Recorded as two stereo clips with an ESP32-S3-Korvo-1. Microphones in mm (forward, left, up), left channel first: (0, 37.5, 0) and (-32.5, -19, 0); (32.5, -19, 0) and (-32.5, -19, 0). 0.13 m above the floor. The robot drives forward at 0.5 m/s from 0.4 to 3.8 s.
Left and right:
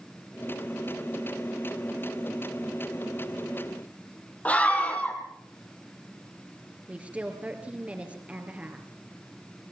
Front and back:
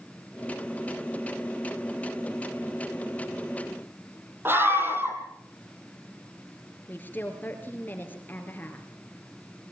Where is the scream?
125° left, 5 m.